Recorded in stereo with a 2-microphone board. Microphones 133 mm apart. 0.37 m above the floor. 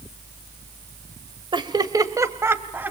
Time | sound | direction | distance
1.5 | laughter | 35° right (ahead or behind) | 1.4 m